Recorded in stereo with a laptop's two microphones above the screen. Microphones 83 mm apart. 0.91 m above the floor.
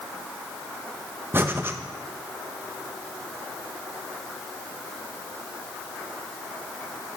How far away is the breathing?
About 0.7 m.